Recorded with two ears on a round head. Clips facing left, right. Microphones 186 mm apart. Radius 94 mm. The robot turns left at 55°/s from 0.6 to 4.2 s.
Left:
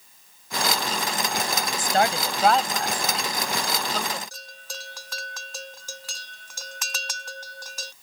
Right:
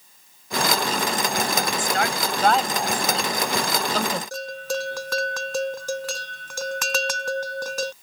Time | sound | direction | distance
1.8 | a woman speaking | 40° left (ahead or behind) | ?
4.3 | a bell | 50° right (ahead or behind) | ?